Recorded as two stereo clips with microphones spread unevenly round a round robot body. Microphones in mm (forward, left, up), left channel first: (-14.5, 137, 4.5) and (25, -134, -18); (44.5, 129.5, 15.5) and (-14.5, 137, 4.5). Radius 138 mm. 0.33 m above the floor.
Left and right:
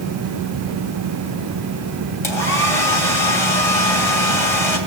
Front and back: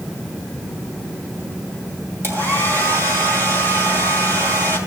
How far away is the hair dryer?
About 2.5 m.